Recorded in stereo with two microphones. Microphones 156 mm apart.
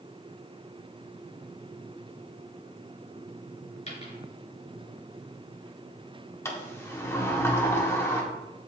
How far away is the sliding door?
About 1.3 m.